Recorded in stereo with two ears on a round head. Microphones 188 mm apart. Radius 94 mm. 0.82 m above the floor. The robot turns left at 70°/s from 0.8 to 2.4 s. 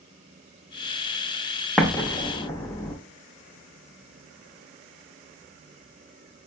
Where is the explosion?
Centre (ahead or behind), 0.6 m; by 3.0 s 20° left (ahead or behind), 0.6 m.